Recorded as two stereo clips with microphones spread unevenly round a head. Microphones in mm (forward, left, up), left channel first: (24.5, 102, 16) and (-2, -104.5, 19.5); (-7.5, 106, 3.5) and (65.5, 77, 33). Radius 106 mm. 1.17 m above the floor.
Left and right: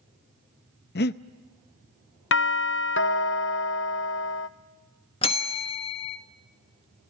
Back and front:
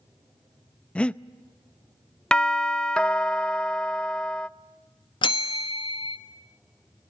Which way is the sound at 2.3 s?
95° left.